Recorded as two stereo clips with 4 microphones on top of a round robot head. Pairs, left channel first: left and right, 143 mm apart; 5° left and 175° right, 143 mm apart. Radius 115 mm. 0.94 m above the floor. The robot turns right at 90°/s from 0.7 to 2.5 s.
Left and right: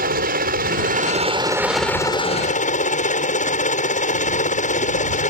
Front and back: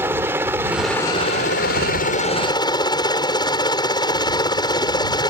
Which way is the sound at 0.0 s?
95° right.